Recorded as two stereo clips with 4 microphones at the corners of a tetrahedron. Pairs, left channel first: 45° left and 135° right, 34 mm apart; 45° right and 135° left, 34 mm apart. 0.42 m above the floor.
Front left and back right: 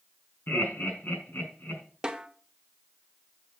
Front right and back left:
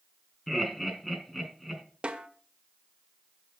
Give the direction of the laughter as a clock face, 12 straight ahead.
11 o'clock.